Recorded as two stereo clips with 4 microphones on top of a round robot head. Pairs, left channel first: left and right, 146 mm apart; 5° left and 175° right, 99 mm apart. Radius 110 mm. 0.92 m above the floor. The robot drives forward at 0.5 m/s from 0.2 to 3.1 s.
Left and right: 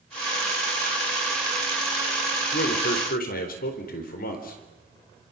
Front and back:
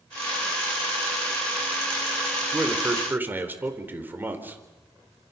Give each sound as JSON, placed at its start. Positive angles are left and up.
{"t": 2.5, "sound": "a man speaking", "azimuth_deg": 110, "distance_m": 4.0}